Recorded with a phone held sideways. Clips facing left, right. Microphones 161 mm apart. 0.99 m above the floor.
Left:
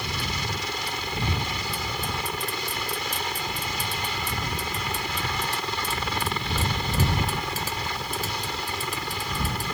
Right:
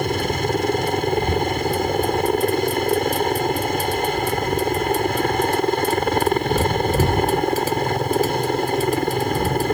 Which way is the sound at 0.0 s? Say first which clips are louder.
Right 12 dB; 50° right (ahead or behind).